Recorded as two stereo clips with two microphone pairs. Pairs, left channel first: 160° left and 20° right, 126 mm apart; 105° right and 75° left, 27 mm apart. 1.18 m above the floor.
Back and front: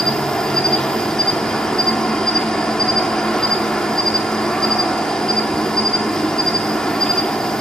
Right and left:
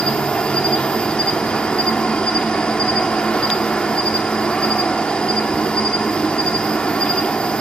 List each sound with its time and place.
0.0 s an insect: 115° right, 0.9 m